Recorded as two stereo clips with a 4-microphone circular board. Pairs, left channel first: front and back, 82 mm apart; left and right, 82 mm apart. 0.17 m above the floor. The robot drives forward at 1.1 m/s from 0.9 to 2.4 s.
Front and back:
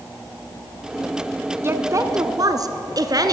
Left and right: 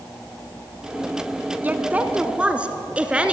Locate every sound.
1.6 s a woman speaking: 145° right, 1.4 m; by 3.3 s 160° right, 2.0 m